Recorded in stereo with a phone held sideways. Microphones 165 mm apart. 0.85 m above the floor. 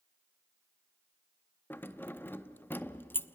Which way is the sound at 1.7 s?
10° left (ahead or behind).